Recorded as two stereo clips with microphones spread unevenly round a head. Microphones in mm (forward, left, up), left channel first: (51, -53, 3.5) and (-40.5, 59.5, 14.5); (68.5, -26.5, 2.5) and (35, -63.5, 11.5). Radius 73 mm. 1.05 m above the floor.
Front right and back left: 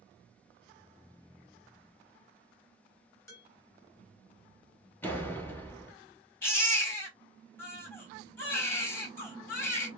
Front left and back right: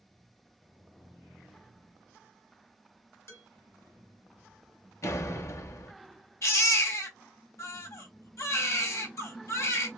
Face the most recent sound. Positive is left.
turn(degrees=25)